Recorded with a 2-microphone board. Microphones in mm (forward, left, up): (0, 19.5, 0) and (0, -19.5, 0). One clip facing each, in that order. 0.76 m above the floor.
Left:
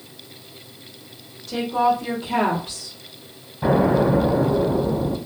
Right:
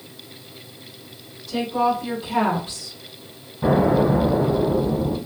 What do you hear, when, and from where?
1.5 s a woman speaking: 55° left (ahead or behind), 1.4 m; by 3.0 s 60° left (ahead or behind), 1.7 m
3.6 s an explosion: 25° left (ahead or behind), 1.3 m